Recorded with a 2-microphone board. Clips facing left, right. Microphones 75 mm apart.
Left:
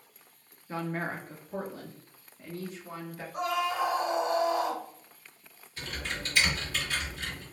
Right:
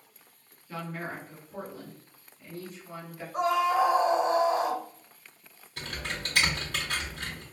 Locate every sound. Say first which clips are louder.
0.7 s a woman speaking: left 3 dB; 30° left (ahead or behind), 0.8 m; by 3.2 s 75° left (ahead or behind), 1.6 m
3.3 s a scream: right 5 dB; 25° right (ahead or behind), 0.6 m
5.8 s typing on a keyboard: right 1 dB; 70° right (ahead or behind), 1.7 m